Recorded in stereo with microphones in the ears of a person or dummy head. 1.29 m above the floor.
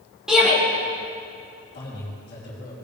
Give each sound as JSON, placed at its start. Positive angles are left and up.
{"t": 0.3, "sound": "a shout", "side_deg": 0, "distance_m": 2.5}
{"t": 1.7, "sound": "a man speaking", "side_deg": 40, "distance_m": 3.5}